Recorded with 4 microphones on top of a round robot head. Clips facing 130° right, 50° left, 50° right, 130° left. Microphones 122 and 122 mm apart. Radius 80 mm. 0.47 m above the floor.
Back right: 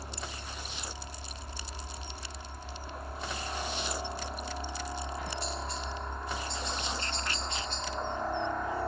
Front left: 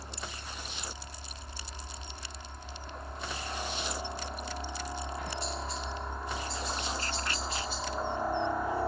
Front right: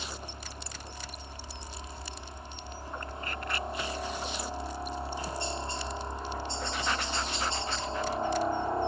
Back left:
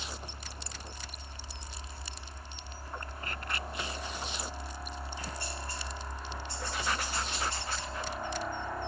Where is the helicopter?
80° right; by 8.9 s 25° right.